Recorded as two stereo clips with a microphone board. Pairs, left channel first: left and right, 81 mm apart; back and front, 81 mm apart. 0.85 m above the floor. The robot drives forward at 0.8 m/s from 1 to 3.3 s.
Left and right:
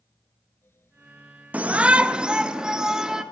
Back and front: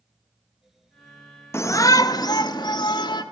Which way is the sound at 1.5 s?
150° right.